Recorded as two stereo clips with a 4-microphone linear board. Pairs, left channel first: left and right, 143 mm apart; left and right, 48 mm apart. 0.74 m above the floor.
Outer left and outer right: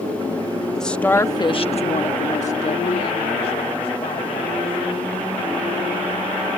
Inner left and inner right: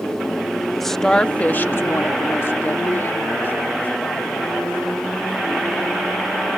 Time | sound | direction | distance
0.8 | a woman speaking | 5° left (ahead or behind) | ?